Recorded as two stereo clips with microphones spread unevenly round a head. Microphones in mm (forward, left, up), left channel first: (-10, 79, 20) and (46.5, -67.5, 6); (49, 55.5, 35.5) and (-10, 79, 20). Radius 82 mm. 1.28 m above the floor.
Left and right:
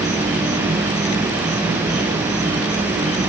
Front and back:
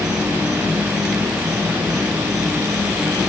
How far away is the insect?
About 9 m.